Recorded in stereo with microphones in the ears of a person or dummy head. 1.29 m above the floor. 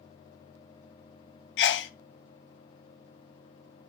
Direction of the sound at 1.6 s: 60° left (ahead or behind).